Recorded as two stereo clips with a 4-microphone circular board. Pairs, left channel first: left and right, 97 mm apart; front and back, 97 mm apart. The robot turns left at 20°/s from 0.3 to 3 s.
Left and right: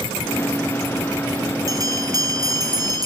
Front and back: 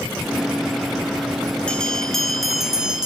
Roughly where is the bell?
Right.